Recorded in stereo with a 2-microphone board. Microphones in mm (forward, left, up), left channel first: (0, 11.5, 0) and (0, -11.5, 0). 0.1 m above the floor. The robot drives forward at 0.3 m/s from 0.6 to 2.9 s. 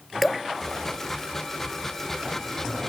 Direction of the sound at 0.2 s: Centre (ahead or behind).